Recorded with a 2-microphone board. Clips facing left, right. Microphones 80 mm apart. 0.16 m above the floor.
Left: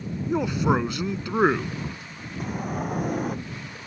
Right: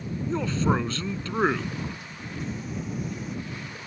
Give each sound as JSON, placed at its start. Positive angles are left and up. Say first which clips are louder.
{"t": 0.3, "sound": "a man speaking", "louder": "left 3 dB", "side_deg": 15}
{"t": 2.4, "sound": "a sliding door", "louder": "left 5 dB", "side_deg": 50}